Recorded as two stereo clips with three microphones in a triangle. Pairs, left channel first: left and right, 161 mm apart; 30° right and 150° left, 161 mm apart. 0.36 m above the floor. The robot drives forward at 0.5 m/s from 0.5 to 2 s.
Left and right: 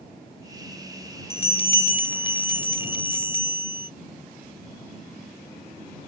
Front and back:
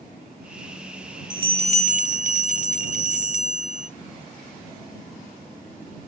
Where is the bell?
105° left, 0.6 m; by 3.9 s 140° left, 0.7 m.